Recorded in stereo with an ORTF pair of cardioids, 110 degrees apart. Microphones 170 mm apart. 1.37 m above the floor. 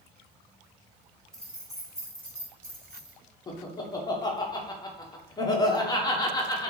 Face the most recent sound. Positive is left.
turn(degrees=25)